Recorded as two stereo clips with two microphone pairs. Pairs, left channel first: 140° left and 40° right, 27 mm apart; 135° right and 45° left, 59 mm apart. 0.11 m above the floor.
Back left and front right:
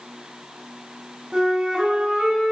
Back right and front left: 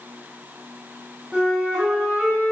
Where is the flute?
20° right, 1.1 m.